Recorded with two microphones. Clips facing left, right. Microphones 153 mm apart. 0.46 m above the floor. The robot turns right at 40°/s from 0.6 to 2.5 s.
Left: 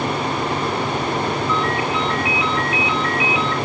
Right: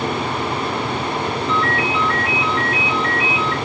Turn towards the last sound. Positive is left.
turn(degrees=-40)